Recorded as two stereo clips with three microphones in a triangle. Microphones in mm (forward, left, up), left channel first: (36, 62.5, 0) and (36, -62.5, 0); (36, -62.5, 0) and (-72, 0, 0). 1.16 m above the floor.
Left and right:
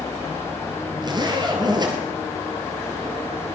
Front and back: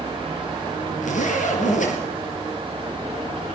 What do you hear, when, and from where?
1.0 s a zipper: 35° right, 4.5 m